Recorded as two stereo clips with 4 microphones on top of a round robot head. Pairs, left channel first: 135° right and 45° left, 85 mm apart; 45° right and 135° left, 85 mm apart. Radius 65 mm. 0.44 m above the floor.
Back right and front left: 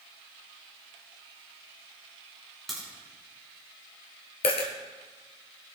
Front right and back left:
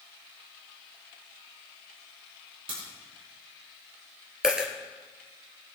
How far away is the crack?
About 5.5 m.